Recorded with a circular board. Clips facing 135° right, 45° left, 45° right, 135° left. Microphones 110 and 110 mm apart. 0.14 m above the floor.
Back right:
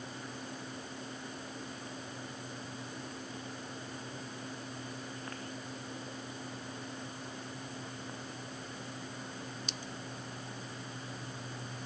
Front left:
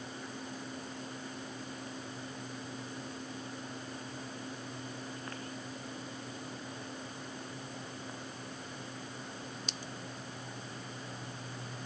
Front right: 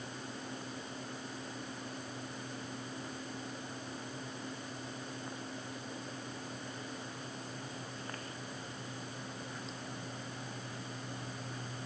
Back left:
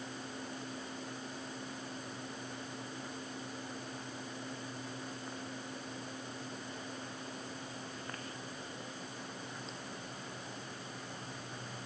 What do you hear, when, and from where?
Only background noise.